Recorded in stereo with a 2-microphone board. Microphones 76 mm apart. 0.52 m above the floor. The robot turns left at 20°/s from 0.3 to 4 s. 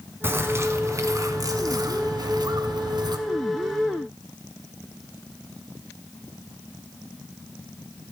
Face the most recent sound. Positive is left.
turn(degrees=-110)